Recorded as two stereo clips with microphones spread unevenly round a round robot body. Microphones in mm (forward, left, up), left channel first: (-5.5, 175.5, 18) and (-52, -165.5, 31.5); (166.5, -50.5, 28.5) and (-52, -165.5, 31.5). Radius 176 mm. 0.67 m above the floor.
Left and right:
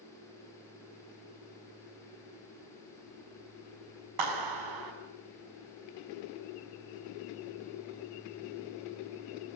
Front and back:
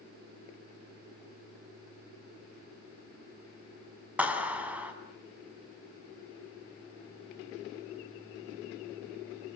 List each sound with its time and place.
4.2 s a clap: 70° right, 6 m